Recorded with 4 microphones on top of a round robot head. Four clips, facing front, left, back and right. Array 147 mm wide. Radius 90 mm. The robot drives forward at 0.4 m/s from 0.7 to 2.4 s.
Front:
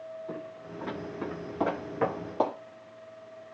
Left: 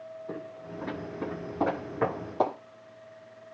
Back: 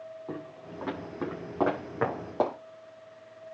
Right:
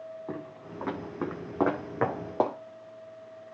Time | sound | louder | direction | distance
0.3 | footsteps | left 2 dB, even | 110° right | 8 m